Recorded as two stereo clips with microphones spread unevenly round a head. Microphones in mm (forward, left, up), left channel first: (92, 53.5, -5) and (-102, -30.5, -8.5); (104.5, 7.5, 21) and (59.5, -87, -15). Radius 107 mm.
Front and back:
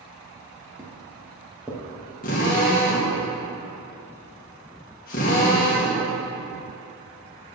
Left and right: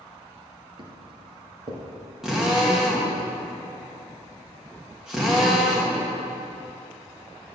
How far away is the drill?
About 1.8 m.